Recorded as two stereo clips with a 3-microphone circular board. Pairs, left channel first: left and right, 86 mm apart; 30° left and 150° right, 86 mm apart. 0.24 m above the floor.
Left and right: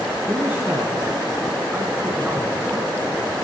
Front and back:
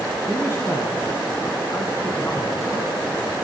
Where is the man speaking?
25° right, 2.5 m.